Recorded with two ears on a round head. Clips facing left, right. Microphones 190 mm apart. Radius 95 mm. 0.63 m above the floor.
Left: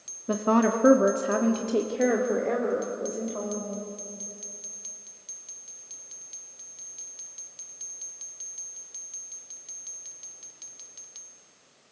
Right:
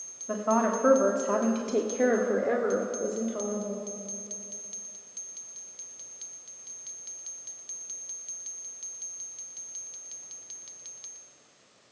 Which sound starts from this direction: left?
A woman speaking, at 0.3 s.